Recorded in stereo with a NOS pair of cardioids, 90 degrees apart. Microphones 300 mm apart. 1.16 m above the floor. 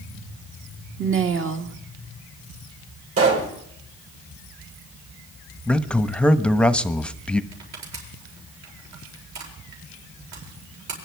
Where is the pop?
50° right, 6.5 m.